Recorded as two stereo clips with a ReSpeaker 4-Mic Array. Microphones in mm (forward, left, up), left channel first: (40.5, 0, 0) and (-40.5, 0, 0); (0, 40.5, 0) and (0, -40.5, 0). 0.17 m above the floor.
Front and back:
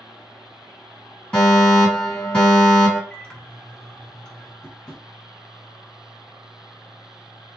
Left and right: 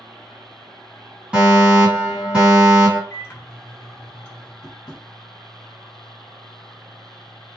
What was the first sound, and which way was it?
A fire alarm, 55° right.